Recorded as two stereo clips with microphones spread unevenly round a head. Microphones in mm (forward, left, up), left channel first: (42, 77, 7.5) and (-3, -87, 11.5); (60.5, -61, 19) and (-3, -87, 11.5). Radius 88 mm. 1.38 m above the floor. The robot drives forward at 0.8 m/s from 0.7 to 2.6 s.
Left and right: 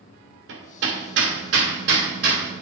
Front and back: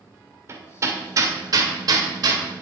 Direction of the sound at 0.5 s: 110° right.